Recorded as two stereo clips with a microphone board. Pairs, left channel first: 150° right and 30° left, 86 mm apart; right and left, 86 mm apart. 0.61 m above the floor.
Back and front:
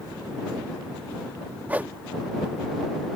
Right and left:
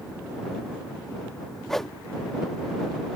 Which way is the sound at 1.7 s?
10° right.